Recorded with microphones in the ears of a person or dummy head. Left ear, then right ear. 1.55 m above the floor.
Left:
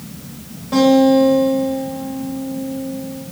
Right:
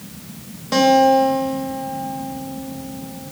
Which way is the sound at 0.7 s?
75° right (ahead or behind).